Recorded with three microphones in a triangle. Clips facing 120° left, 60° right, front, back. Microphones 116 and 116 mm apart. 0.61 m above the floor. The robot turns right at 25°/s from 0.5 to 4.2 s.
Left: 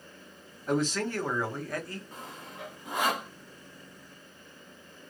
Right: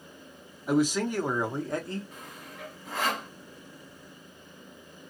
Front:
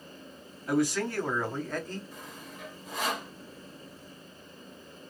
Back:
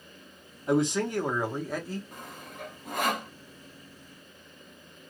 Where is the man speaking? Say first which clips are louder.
Right 3 dB, back 2 dB; 135° right, 0.9 m; by 2.0 s 100° right, 0.9 m.